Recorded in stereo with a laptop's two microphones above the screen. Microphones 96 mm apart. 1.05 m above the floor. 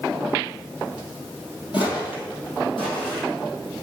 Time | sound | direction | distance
1.7 | footsteps | 55° left (ahead or behind) | 2.0 m